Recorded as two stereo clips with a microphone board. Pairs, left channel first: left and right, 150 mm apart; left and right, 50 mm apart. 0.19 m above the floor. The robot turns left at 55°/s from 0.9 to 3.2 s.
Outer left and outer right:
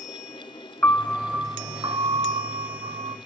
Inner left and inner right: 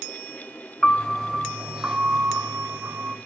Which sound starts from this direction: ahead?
A piano, at 0.8 s.